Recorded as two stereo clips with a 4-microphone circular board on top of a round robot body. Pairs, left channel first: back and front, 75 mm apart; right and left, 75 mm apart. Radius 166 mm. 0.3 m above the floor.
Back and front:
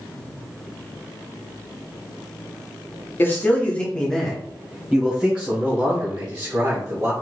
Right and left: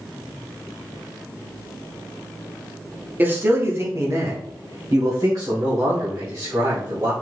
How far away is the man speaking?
About 1.4 m.